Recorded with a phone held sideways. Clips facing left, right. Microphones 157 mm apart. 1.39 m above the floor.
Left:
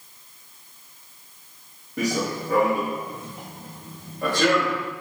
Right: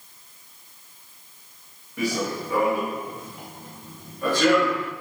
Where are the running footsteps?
45° left (ahead or behind), 3 m.